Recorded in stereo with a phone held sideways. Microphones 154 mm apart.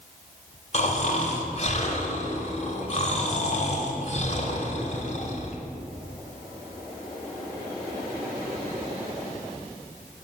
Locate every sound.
0.7 s snoring: 45° left (ahead or behind), 1.7 m